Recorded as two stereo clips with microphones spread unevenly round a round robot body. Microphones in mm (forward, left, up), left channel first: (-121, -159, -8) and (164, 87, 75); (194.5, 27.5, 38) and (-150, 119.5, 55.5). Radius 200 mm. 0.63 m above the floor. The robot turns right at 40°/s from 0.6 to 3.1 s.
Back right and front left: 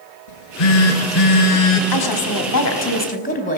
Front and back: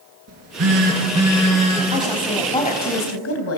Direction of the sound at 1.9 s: 120° right.